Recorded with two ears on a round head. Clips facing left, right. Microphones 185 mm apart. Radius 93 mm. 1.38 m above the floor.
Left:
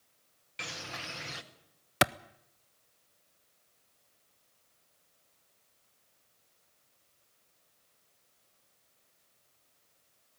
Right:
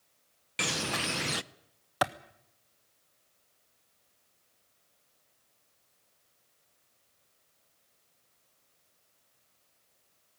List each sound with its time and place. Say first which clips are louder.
0.6 s a bird: right 11 dB; 65° right (ahead or behind), 0.6 m
2.0 s a clap: left 1 dB; 30° left (ahead or behind), 0.5 m